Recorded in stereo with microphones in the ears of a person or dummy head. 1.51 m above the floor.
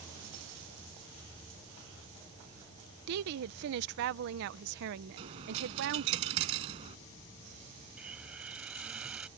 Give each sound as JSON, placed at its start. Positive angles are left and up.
{"t": 3.1, "sound": "a woman speaking", "side_deg": -65}
{"t": 5.2, "sound": "a dropped coin", "side_deg": -30}
{"t": 8.0, "sound": "a hiss", "side_deg": -15}